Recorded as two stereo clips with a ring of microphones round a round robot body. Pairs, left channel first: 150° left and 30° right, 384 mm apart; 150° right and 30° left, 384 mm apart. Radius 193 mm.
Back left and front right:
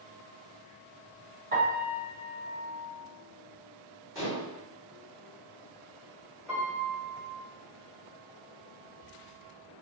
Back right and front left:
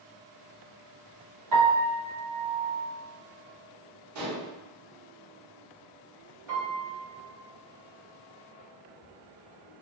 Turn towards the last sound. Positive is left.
turn(degrees=60)